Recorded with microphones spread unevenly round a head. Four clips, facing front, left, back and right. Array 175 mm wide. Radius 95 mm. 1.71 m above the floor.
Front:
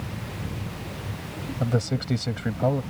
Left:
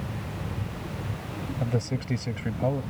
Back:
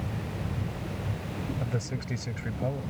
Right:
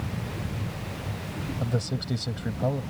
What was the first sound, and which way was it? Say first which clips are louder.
A man speaking: left 2 dB, front 7 dB; 15° left.